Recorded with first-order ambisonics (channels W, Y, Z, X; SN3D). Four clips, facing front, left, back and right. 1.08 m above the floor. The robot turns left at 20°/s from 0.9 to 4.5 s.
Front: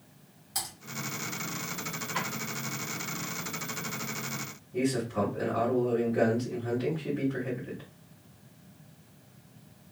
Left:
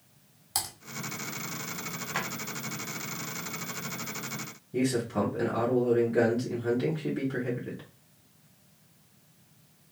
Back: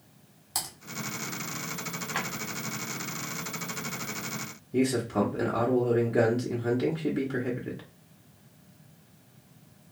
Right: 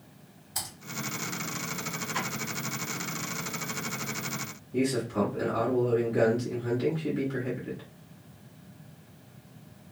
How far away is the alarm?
I don't hear an alarm.